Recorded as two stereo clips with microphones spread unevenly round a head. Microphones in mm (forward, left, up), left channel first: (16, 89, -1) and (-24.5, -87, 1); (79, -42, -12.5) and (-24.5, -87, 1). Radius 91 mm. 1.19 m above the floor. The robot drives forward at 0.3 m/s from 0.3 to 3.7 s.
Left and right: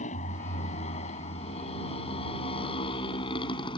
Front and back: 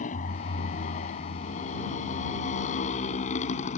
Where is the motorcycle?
25° left; by 3.8 s 10° left.